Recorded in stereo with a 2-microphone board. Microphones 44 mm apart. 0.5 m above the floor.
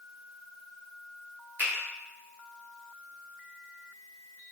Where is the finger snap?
45° right (ahead or behind), 1.2 m.